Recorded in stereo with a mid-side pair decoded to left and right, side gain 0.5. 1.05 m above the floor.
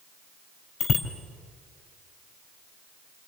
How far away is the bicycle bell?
About 4.5 m.